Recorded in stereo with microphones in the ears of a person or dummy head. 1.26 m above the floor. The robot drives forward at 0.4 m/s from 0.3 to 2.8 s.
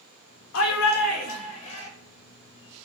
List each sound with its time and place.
0.5 s a shout: 70° left (ahead or behind), 0.5 m; by 1.9 s 35° left (ahead or behind), 0.8 m